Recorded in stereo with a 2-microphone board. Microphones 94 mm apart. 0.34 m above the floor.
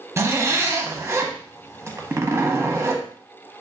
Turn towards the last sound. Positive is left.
turn(degrees=-30)  # may be behind; listen again after turning